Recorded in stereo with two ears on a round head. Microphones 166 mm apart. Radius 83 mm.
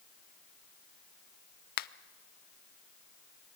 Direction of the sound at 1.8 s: 50° left (ahead or behind).